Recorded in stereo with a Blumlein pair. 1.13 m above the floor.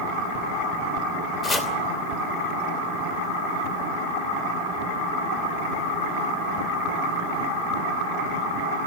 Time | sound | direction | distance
1.4 | chopping | 15° left | 2.5 m